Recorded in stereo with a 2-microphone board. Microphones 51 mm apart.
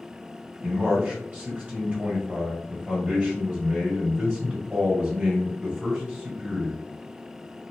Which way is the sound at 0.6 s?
25° right (ahead or behind).